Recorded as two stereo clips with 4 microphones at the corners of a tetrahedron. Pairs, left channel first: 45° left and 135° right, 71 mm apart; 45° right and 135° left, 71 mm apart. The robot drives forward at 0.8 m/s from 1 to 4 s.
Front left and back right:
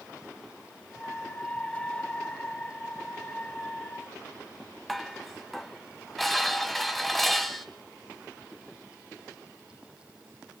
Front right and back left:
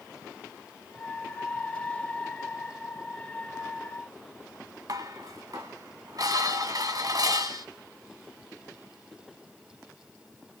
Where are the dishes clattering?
135° left, 1.4 m.